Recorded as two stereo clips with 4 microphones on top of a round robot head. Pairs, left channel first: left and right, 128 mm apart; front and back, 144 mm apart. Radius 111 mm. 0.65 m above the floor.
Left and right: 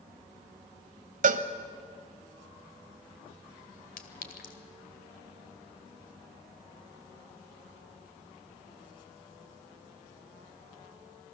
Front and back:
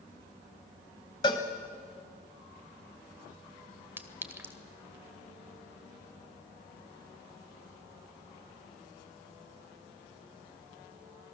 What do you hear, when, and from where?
1.2 s a cowbell: 65° right, 1.1 m
4.0 s a clink: 105° left, 1.9 m